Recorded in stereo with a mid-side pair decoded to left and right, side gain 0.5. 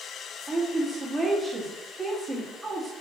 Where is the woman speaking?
20° right, 2.0 m.